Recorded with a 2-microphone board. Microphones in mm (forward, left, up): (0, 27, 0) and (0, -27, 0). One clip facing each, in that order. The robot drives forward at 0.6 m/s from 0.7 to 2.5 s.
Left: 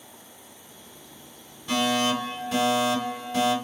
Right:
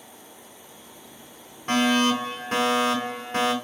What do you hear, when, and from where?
1.7 s a fire alarm: 50° right (ahead or behind), 3.5 m; by 3.5 s 45° right (ahead or behind), 3.5 m